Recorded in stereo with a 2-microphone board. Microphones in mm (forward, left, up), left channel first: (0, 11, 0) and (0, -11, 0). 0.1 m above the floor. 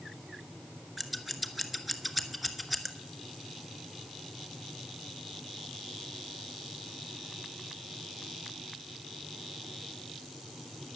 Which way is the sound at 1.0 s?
5° right (ahead or behind).